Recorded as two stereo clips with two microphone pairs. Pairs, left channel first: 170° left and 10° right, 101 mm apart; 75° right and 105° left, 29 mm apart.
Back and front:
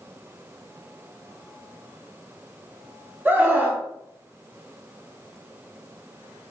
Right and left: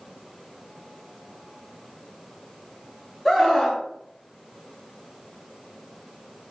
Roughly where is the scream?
Ahead.